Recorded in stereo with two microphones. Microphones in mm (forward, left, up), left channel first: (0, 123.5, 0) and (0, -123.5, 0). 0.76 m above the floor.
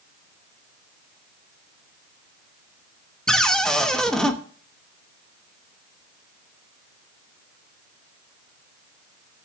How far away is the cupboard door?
About 1.0 m.